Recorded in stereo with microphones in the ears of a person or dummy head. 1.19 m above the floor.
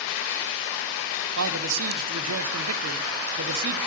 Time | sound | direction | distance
1.4 | a man speaking | 75° right (ahead or behind) | 1.1 m